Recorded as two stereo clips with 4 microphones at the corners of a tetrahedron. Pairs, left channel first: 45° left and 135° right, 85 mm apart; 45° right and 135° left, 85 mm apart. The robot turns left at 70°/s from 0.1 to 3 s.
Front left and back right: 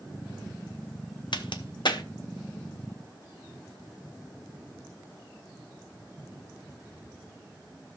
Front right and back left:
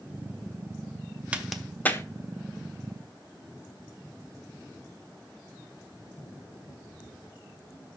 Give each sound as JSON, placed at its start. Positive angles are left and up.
{"t": 1.3, "sound": "a crack", "azimuth_deg": 60, "distance_m": 0.9}